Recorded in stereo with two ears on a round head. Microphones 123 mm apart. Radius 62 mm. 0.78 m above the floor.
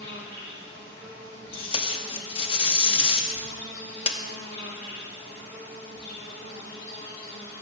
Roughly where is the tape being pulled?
Left.